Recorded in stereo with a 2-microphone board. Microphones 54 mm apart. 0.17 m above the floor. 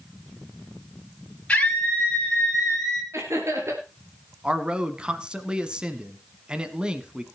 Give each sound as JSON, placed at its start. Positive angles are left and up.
{"t": 1.5, "sound": "a scream", "side_deg": 20, "distance_m": 4.0}
{"t": 3.1, "sound": "laughter", "side_deg": -65, "distance_m": 3.0}
{"t": 4.4, "sound": "a man speaking", "side_deg": -15, "distance_m": 1.2}